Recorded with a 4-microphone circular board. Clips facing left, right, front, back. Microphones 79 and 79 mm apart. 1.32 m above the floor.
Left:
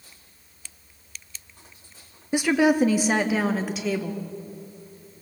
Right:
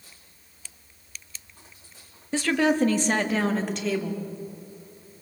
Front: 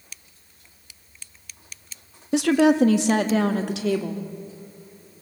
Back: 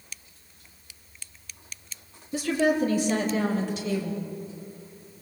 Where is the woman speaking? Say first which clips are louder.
Left 3 dB, front 6 dB; 15° left, 1.2 m; by 4.3 s 5° left, 2.5 m.